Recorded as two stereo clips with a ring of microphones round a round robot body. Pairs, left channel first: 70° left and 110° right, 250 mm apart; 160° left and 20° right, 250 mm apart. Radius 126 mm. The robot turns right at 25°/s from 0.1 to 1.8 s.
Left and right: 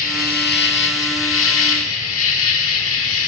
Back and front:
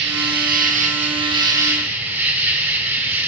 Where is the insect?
15° left, 1.1 m; by 3.3 s 60° left, 1.1 m.